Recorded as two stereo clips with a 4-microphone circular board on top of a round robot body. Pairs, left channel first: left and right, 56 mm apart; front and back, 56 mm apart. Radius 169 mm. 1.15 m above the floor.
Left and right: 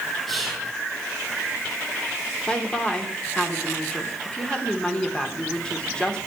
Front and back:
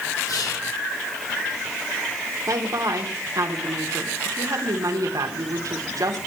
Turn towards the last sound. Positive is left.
turn(degrees=165)